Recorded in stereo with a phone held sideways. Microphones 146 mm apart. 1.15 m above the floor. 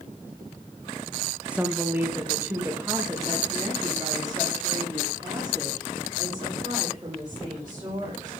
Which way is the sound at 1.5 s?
10° right (ahead or behind).